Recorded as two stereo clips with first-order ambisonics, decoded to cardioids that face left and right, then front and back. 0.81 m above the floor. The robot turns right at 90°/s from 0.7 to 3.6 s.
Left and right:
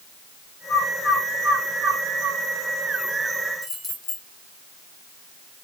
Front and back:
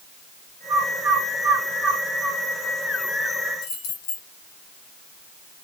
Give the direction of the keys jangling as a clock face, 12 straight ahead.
1 o'clock.